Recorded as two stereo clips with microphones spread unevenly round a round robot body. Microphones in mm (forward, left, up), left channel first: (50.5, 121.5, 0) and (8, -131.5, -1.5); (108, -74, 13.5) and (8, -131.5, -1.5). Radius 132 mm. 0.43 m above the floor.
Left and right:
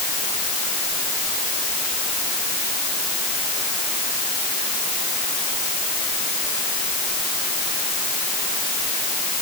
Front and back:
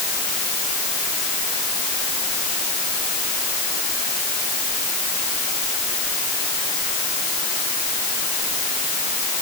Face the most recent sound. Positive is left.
No sound to turn to.